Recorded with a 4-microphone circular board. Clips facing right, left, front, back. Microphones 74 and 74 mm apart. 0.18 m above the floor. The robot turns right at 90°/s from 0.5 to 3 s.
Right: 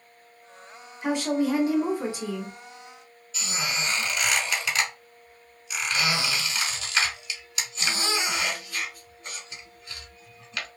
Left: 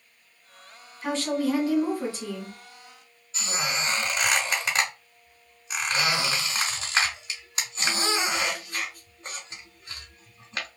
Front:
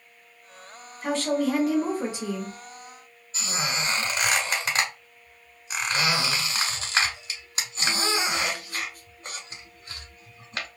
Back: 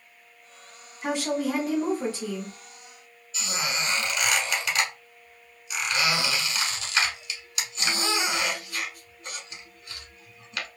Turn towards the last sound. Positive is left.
turn(degrees=45)